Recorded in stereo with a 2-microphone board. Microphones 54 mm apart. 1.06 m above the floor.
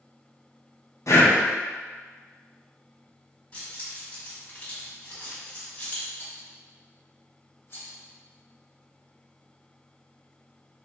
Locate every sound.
1.1 s breathing: 65° left (ahead or behind), 0.5 m
3.5 s keys jangling: 25° left (ahead or behind), 1.3 m
6.2 s a rattle: 45° left (ahead or behind), 0.9 m